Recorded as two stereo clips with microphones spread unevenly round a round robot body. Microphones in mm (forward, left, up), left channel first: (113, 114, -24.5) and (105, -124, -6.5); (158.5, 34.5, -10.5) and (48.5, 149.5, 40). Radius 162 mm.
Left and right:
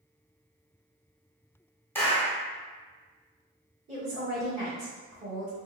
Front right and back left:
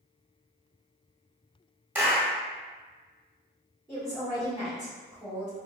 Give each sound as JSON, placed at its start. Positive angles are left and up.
{"t": 1.9, "sound": "a clap", "azimuth_deg": 30, "distance_m": 0.8}
{"t": 3.9, "sound": "a woman speaking", "azimuth_deg": -95, "distance_m": 1.4}